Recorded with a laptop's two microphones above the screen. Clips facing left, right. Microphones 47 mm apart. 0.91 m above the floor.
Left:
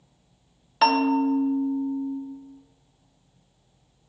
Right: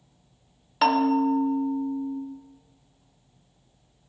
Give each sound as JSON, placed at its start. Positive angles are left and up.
{"t": 0.8, "sound": "a bell", "side_deg": 0, "distance_m": 1.1}